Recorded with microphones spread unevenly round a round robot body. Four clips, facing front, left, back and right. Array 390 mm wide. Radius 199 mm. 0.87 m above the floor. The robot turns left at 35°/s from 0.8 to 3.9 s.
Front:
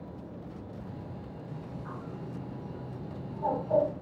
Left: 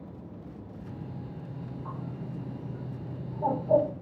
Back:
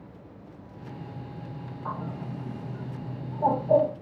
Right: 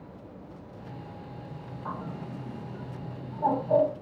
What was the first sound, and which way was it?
A bird, 135° right.